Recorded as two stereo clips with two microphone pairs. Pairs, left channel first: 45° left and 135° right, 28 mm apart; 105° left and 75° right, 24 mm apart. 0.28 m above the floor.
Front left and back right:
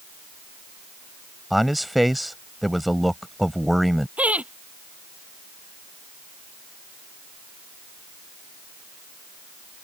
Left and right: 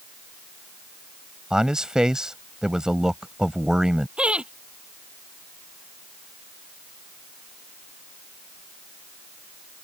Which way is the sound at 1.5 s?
55° right.